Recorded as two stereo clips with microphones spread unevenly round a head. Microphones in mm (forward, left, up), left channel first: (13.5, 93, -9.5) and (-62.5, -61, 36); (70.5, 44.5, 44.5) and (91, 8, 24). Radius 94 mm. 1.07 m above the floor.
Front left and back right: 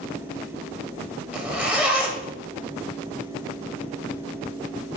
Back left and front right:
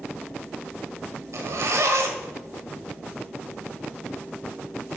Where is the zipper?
60° right, 0.9 m.